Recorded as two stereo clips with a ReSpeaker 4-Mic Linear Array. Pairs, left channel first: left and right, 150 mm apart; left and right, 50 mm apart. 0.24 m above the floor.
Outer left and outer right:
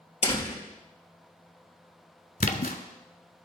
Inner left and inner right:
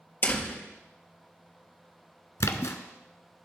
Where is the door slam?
40° left (ahead or behind), 3 m.